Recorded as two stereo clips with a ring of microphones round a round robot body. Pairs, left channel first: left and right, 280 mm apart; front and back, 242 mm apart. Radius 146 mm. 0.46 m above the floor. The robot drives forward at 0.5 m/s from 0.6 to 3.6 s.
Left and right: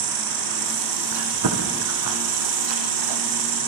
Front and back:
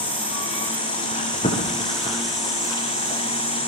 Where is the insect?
85° right, 7.5 m; by 3.7 s 95° right, 7.5 m.